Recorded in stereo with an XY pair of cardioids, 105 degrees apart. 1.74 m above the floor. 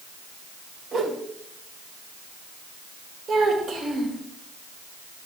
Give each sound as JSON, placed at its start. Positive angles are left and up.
{"t": 0.9, "sound": "a whoosh", "azimuth_deg": -70, "distance_m": 2.5}
{"t": 3.3, "sound": "a child speaking", "azimuth_deg": -65, "distance_m": 2.5}